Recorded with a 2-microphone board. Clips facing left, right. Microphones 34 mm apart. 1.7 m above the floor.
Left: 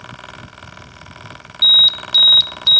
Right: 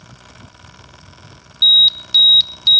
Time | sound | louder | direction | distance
1.6 | an alarm | even | 5° right (ahead or behind) | 0.7 m